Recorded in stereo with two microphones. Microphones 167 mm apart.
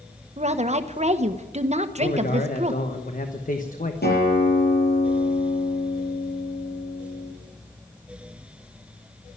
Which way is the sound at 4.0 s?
75° left (ahead or behind).